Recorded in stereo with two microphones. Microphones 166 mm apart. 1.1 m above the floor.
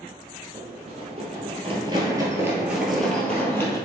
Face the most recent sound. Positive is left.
turn(degrees=15)  # may be behind; listen again after turning